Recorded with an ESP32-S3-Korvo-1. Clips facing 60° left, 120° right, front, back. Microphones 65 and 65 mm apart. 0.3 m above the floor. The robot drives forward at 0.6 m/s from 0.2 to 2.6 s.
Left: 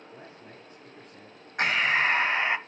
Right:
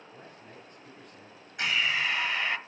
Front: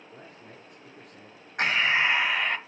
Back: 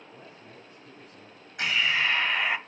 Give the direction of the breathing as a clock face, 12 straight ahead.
11 o'clock.